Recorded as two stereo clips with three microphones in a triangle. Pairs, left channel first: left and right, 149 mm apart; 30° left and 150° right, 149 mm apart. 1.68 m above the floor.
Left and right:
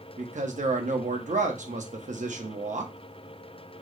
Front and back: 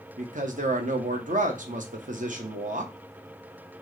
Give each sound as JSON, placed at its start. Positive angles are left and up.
{"t": 0.2, "sound": "a man speaking", "azimuth_deg": -120, "distance_m": 0.9}